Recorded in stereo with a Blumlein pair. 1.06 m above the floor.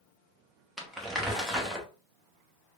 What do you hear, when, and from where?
0.8 s crumpling: 5° right, 1.0 m